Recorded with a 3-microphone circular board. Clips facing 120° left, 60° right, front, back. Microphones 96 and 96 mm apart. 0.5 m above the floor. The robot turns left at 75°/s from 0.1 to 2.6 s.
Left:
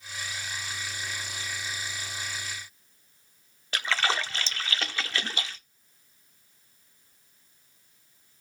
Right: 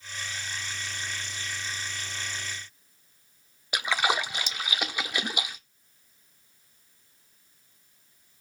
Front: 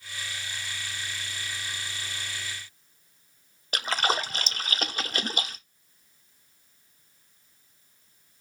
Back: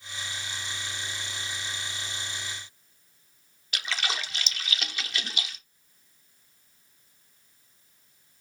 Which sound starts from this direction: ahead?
A splash, at 3.7 s.